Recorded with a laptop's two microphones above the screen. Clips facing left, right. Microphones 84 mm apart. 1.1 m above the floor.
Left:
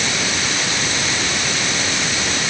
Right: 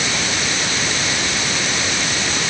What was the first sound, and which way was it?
Only background noise.